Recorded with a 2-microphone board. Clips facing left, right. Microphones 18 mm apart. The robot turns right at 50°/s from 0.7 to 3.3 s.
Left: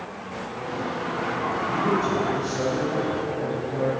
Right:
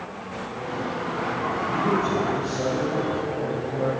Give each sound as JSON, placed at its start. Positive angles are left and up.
{"t": 1.7, "sound": "a man speaking", "azimuth_deg": 5, "distance_m": 3.5}